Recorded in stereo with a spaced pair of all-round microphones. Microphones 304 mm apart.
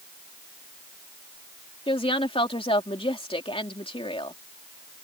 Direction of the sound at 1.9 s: 20° left (ahead or behind).